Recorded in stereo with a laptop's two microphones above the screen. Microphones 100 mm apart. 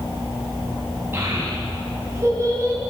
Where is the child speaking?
25° right (ahead or behind), 4.5 m; by 2.8 s 35° right (ahead or behind), 5.5 m.